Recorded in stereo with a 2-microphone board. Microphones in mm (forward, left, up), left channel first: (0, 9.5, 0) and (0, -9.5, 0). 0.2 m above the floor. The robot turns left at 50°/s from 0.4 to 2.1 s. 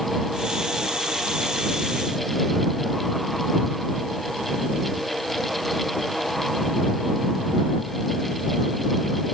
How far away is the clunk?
I don't hear a clunk.